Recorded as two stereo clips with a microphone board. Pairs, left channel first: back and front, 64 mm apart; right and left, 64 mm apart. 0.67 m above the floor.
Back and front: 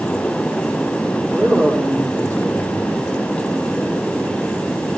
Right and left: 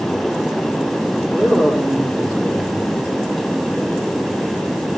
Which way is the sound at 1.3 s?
45° left.